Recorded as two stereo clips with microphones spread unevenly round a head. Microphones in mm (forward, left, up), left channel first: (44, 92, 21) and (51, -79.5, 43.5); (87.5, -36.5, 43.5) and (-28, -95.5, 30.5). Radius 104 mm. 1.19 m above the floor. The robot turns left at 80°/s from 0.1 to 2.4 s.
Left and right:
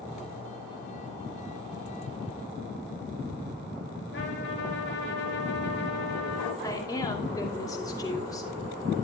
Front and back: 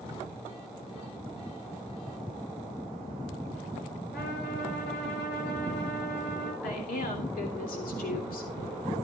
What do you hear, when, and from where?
4.1 s a trumpet: 75° left, 5 m
6.6 s a woman speaking: 20° left, 2.5 m